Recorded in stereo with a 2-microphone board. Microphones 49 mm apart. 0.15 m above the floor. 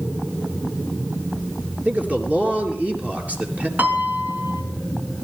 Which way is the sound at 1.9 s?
30° right (ahead or behind).